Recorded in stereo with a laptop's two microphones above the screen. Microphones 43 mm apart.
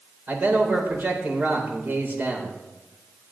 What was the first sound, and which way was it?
A man speaking, 45° right (ahead or behind).